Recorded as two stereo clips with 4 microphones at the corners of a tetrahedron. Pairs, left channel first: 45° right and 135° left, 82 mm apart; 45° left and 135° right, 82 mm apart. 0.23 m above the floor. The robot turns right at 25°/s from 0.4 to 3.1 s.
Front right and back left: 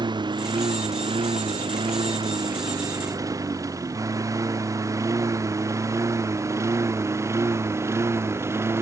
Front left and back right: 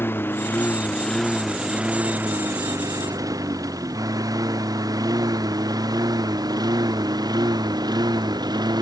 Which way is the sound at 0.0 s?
110° left.